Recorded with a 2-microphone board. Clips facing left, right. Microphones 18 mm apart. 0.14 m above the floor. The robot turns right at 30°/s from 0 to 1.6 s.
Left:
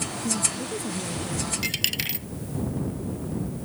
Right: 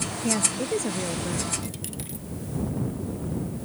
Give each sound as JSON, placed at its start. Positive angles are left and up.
{"t": 0.2, "sound": "a woman speaking", "azimuth_deg": -80}
{"t": 1.6, "sound": "a dropped coin", "side_deg": 60}